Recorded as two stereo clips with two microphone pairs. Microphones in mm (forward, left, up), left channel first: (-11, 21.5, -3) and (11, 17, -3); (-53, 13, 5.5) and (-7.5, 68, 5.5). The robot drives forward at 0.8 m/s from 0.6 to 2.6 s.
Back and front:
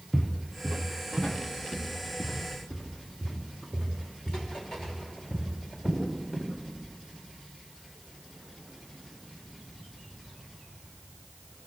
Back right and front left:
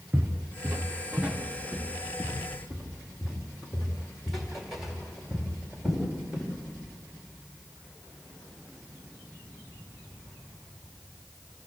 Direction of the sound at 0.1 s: 105° left.